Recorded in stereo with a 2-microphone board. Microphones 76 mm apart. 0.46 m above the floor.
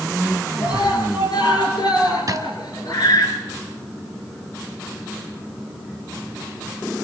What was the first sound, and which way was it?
A scream, 70° left (ahead or behind).